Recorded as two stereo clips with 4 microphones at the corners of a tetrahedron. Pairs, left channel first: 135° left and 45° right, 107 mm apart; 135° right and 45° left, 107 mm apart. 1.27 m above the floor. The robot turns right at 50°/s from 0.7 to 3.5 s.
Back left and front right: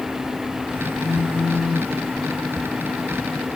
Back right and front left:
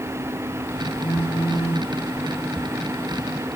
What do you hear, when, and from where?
1.0 s a phone buzzing: 165° right, 8.5 m; by 1.9 s 120° right, 8.5 m